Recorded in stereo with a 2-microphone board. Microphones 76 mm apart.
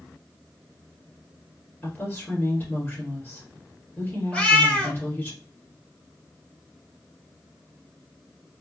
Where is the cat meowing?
20° left (ahead or behind), 1.2 m.